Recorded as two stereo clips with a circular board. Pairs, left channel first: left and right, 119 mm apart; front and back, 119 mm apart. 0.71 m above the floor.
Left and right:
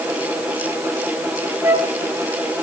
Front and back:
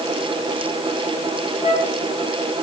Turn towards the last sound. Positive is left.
turn(degrees=-20)